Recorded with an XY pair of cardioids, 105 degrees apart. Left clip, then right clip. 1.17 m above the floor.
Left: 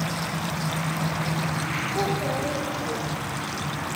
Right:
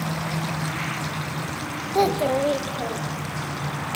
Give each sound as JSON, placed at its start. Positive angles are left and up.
{"t": 1.9, "sound": "a child speaking", "azimuth_deg": -55, "distance_m": 0.7}